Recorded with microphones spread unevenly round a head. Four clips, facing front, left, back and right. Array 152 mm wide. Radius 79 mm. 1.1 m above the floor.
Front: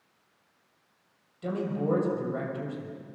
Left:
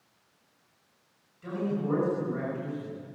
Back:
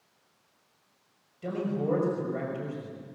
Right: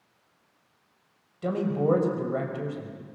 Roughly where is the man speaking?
Right.